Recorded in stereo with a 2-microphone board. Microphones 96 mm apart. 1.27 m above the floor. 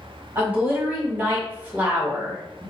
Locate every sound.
0.3 s a woman speaking: 20° right (ahead or behind), 1.4 m